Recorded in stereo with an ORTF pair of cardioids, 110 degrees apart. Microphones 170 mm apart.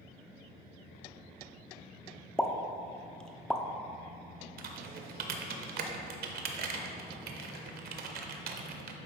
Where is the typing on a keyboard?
60° right, 0.8 m.